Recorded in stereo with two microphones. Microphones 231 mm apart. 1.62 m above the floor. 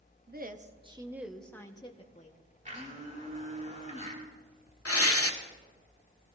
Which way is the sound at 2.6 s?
35° right (ahead or behind).